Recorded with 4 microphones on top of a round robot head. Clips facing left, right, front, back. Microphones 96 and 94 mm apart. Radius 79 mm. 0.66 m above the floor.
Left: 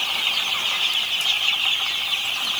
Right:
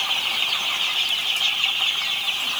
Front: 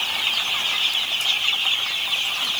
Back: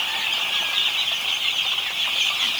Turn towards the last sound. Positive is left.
No sound to turn to.